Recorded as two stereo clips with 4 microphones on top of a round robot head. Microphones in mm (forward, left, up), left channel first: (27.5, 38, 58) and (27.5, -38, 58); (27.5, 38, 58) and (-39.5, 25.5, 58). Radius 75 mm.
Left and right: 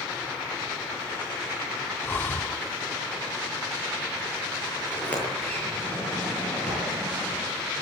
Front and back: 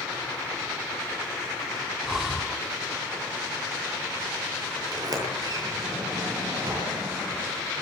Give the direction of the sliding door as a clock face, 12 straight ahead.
7 o'clock.